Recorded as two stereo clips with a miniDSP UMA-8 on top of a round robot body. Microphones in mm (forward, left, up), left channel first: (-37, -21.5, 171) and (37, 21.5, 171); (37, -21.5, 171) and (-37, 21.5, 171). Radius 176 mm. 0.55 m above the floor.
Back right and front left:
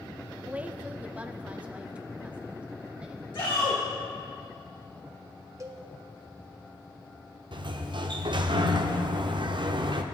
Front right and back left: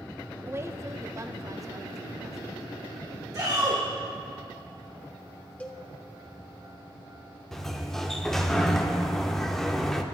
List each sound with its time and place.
0.5 s a woman speaking: 100° left, 0.8 m; by 3.2 s 105° left, 2 m
3.3 s a shout: 170° right, 2.5 m
5.6 s a cowbell: 35° left, 1.5 m
7.5 s a sliding door: 55° left, 0.9 m